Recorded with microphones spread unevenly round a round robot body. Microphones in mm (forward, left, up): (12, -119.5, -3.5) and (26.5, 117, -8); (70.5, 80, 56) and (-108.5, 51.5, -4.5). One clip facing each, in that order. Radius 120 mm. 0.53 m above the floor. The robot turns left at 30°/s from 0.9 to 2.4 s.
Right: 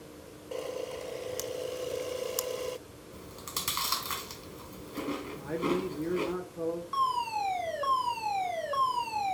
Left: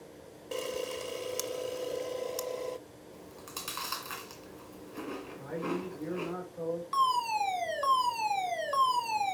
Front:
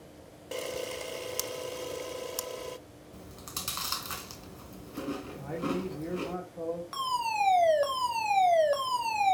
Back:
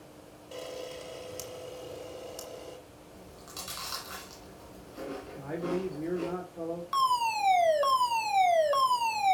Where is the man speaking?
105° right, 1.5 m.